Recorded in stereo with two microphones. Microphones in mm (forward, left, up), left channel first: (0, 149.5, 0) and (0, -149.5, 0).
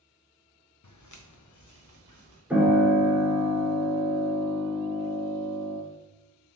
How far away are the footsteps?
About 0.6 m.